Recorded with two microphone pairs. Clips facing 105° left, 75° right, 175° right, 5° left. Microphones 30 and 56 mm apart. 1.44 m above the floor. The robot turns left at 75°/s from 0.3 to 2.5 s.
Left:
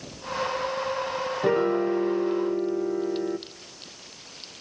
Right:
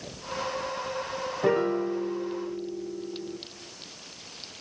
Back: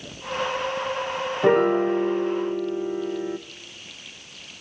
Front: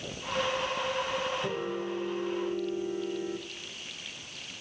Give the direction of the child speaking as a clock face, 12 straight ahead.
No child speaking in this recording.